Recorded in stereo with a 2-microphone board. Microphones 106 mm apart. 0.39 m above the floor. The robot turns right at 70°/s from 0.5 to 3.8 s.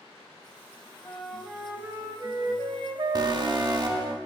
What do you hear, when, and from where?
1.1 s a flute: 155° left, 0.6 m; by 4.1 s 15° right, 0.6 m
3.1 s an alarm: 115° right, 0.7 m; by 4.2 s 70° right, 0.7 m